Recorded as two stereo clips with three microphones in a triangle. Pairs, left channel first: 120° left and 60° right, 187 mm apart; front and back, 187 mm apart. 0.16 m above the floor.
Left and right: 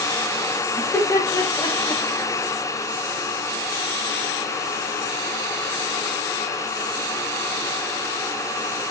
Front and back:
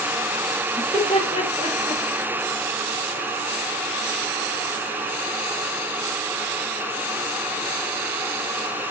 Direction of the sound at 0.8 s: 40° left.